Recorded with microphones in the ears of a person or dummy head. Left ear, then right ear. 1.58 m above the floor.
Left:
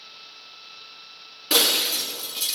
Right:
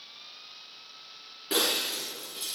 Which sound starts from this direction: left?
Breaking glass, at 1.5 s.